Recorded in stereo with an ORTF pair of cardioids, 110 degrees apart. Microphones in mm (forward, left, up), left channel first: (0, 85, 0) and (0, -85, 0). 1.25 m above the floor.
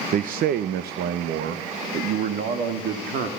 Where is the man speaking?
55° right, 0.6 m; by 3.3 s 80° right, 2.5 m.